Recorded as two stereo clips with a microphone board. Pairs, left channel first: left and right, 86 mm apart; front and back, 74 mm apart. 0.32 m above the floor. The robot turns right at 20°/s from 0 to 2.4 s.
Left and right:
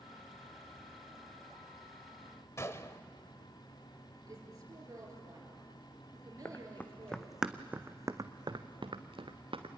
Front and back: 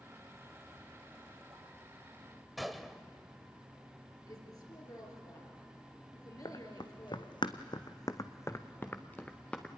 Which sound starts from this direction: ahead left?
Running footsteps, at 6.5 s.